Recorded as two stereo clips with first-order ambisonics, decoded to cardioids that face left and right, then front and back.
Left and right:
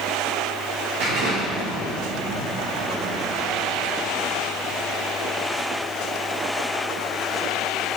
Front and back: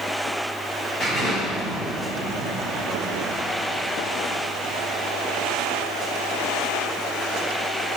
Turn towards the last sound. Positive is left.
turn(degrees=-90)